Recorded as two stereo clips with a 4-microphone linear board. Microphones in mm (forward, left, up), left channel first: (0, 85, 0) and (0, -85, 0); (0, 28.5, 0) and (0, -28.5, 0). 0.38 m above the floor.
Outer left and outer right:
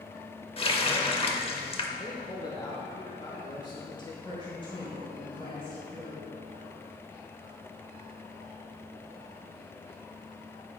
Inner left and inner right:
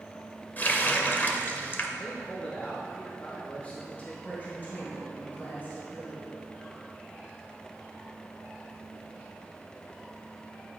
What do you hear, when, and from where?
0.6 s a running tap: 35° left (ahead or behind), 0.7 m
2.0 s a man speaking: 25° left (ahead or behind), 0.9 m
4.2 s a woman speaking: 30° left (ahead or behind), 2.5 m